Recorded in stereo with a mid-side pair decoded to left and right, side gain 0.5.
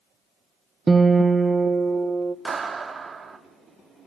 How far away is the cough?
I don't hear a cough.